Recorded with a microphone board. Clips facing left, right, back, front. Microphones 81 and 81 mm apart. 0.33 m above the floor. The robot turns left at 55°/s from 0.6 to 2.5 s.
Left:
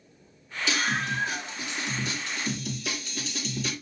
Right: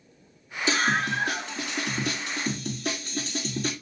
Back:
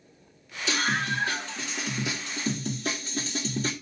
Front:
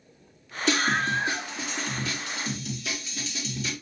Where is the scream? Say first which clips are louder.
Right 4 dB, front 3 dB; 35° right, 4 m; by 3.7 s 135° right, 4 m.